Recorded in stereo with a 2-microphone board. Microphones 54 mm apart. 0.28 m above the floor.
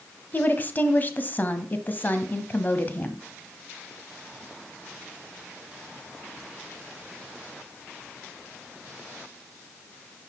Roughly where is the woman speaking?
Left.